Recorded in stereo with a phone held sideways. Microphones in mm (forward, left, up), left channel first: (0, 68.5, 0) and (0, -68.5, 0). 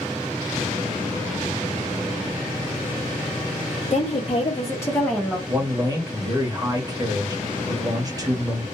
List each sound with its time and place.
3.9 s a woman speaking: 55° left (ahead or behind), 0.9 m; by 5.4 s centre (ahead or behind), 0.9 m
5.5 s a man speaking: 25° right (ahead or behind), 1.1 m